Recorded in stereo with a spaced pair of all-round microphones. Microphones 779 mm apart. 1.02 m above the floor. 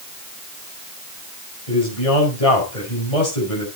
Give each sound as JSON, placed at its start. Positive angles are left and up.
{"t": 1.7, "sound": "a man speaking", "side_deg": 45, "distance_m": 5.5}